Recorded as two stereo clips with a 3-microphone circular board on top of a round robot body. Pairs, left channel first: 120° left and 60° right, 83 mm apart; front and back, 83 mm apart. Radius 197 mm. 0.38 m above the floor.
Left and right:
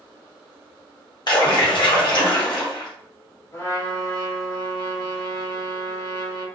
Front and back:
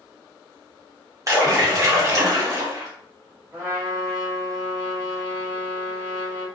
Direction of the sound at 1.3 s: 135° left.